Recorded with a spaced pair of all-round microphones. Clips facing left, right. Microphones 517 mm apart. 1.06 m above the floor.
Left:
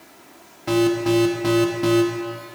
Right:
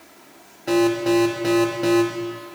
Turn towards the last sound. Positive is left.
turn(degrees=25)  # may be behind; listen again after turning